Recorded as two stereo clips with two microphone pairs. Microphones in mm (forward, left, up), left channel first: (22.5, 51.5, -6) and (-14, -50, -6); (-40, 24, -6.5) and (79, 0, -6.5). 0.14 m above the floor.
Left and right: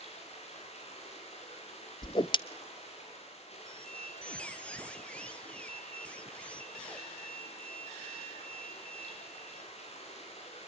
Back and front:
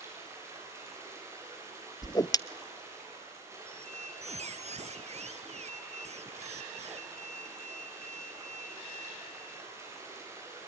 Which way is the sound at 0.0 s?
55° left.